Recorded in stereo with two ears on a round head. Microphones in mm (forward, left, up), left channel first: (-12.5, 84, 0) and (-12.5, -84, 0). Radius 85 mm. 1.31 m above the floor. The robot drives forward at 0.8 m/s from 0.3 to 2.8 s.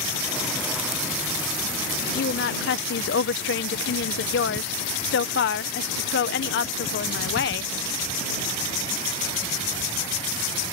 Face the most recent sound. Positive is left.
turn(degrees=65)  # may be behind; listen again after turning